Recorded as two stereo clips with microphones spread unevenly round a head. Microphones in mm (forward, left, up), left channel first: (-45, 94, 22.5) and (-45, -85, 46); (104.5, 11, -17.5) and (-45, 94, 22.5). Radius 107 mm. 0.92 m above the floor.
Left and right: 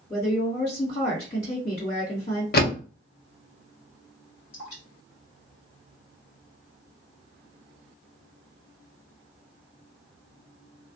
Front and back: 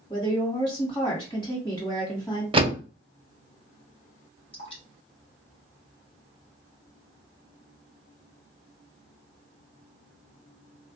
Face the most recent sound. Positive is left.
turn(degrees=30)